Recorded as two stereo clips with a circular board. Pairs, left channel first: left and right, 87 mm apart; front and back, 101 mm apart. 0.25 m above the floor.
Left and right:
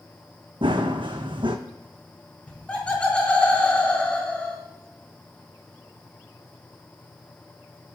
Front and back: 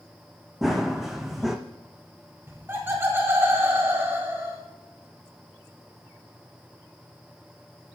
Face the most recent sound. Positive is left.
turn(degrees=150)